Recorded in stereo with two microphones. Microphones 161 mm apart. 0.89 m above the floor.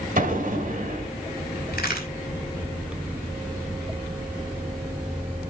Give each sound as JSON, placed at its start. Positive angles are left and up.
{"t": 0.2, "sound": "an explosion", "side_deg": -55, "distance_m": 2.0}
{"t": 1.7, "sound": "a crack", "side_deg": 70, "distance_m": 4.0}